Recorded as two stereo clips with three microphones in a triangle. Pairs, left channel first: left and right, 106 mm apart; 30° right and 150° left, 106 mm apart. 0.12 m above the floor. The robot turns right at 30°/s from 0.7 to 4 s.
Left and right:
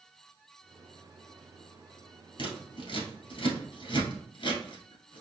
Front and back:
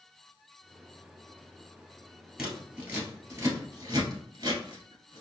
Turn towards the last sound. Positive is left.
turn(degrees=110)